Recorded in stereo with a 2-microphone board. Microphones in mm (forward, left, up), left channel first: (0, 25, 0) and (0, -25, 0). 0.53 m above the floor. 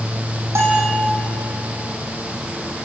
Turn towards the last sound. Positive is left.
turn(degrees=-70)  # may be behind; listen again after turning